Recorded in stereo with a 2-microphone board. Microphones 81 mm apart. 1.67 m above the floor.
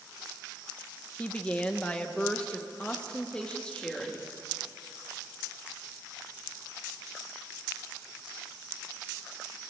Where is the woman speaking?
15° left (ahead or behind), 1.0 m; by 4.3 s 10° left (ahead or behind), 2.5 m.